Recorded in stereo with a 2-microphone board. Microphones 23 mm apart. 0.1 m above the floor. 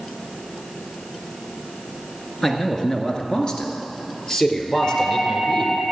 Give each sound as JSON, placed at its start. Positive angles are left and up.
{"t": 2.4, "sound": "a man speaking", "side_deg": 25, "distance_m": 1.4}
{"t": 4.7, "sound": "a doorbell", "side_deg": 70, "distance_m": 5.5}